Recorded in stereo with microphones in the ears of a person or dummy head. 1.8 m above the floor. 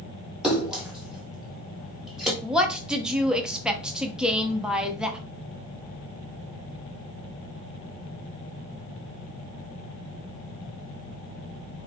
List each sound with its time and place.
0.4 s a splash: 5° right (ahead or behind), 1.0 m
2.4 s a woman speaking: 10° right (ahead or behind), 0.6 m